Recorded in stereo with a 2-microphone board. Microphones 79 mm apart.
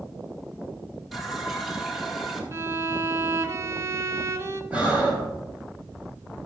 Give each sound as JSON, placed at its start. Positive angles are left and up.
{"t": 1.1, "sound": "a running tap", "side_deg": -5, "distance_m": 2.0}
{"t": 2.5, "sound": "a violin", "side_deg": -35, "distance_m": 0.9}
{"t": 4.7, "sound": "breathing", "side_deg": -15, "distance_m": 5.0}